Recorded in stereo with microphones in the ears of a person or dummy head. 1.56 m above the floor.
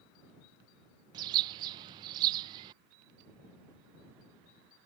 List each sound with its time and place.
1.1 s a bird: 25° right (ahead or behind)